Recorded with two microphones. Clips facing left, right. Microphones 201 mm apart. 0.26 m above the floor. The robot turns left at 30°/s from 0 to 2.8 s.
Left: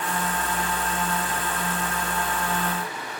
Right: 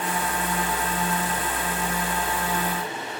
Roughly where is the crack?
No crack in this recording.